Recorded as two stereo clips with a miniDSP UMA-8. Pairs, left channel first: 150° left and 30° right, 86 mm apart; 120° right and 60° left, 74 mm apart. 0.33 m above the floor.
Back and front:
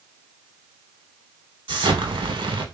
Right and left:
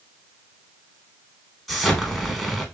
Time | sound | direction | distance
1.7 | an explosion | 30° right | 0.6 m